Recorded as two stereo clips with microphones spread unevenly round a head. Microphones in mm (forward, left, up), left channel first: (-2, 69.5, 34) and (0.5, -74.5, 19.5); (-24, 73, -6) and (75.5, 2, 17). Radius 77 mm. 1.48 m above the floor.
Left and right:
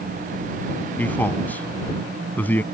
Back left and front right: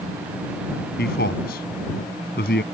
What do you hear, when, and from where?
1.0 s a man speaking: 170° left